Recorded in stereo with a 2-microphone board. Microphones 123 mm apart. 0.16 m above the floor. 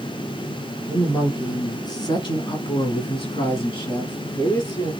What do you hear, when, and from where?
0.9 s a woman speaking: 25° left (ahead or behind), 2.5 m; by 4.9 s 35° left (ahead or behind), 2.5 m